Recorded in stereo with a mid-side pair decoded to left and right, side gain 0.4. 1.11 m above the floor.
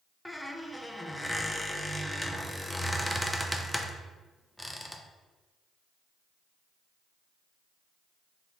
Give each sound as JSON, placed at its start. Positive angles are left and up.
{"t": 0.2, "sound": "a squeak", "azimuth_deg": 5, "distance_m": 0.5}